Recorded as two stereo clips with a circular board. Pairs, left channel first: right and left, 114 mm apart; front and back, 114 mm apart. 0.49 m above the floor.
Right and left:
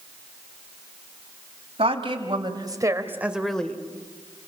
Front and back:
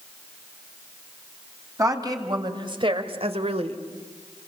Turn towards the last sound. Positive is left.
turn(degrees=-165)